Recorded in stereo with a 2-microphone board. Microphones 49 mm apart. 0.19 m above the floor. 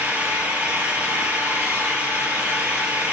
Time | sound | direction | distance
0.0 | an engine running | 30° right (ahead or behind) | 2.5 m